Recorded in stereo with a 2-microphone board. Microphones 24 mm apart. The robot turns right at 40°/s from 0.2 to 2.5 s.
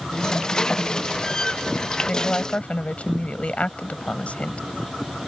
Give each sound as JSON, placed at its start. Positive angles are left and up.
{"t": 2.1, "sound": "a woman speaking", "side_deg": 40}